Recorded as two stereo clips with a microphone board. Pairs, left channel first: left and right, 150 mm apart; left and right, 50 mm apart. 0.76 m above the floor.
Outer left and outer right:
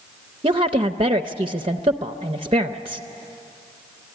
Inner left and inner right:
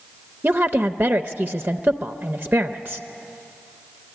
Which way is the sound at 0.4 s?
35° right (ahead or behind).